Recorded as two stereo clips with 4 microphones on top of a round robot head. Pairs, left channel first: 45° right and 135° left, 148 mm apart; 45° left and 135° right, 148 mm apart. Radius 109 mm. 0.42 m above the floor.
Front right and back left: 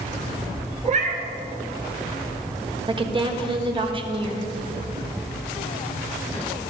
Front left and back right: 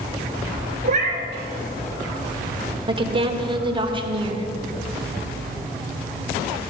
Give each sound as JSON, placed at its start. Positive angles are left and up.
{"t": 0.8, "sound": "a cat meowing", "azimuth_deg": 180, "distance_m": 1.5}
{"t": 2.9, "sound": "a woman speaking", "azimuth_deg": 180, "distance_m": 1.3}